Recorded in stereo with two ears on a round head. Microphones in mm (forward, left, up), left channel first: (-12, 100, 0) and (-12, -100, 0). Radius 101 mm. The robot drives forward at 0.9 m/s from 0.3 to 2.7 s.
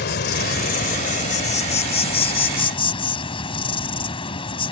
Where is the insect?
50° left (ahead or behind); by 4.7 s 25° left (ahead or behind).